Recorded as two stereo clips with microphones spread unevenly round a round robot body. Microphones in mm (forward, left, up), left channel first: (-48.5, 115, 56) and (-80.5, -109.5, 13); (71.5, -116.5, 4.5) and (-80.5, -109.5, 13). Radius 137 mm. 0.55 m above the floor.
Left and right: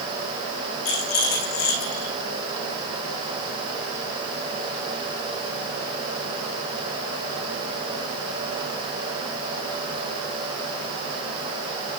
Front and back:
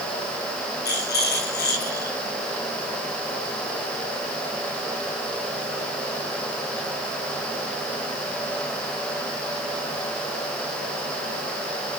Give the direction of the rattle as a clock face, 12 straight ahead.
11 o'clock.